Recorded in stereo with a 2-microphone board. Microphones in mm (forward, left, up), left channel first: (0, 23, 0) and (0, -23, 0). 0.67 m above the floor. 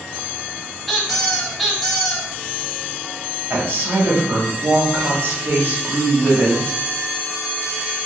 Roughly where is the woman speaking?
Right.